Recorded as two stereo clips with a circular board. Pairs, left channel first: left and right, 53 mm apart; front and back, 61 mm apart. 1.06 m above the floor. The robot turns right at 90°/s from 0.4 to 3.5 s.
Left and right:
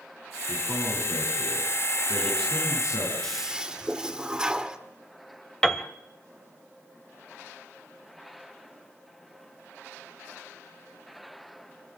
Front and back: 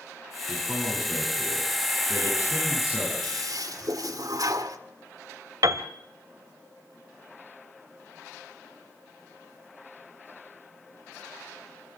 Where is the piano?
170° left, 1.7 m.